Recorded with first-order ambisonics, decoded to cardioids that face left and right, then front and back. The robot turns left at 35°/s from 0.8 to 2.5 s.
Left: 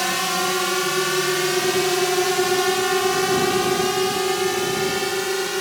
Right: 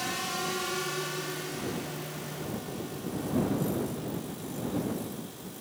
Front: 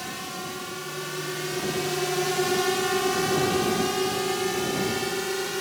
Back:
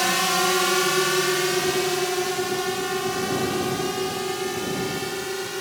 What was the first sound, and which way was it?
A drone, 140° left.